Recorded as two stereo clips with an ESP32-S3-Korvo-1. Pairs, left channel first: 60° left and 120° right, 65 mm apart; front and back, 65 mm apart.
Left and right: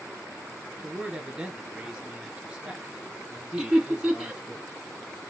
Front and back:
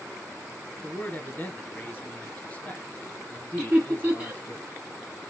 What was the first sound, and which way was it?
A man speaking, 45° right.